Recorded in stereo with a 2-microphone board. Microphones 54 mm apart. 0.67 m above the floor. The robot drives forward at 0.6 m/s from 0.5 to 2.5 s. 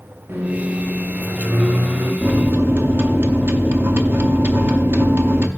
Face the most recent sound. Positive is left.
turn(degrees=-50)  # may be behind; listen again after turning